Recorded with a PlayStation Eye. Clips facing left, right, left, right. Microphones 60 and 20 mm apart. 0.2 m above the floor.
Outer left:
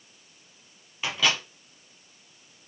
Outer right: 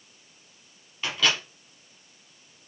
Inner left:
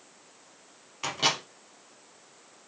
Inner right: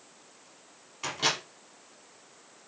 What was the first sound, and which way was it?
A microwave, 10° left (ahead or behind).